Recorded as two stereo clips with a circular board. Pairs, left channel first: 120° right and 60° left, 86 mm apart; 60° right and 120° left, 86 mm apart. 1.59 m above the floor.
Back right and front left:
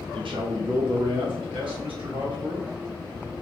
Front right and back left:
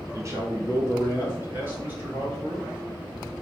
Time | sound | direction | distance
0.1 | a man speaking | 65° left | 1.1 m